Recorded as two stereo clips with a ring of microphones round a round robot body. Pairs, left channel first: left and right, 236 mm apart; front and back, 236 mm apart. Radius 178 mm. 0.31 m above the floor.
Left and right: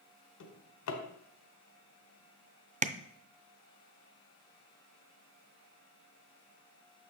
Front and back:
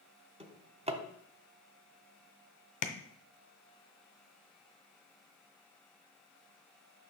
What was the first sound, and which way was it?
A drawer, 110° left.